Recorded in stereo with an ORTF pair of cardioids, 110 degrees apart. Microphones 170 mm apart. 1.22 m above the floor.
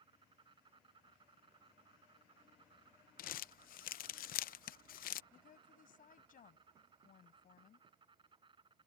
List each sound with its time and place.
0.0 s an insect: 30° right
3.2 s crumpling: 60° left
5.3 s a woman speaking: 55° left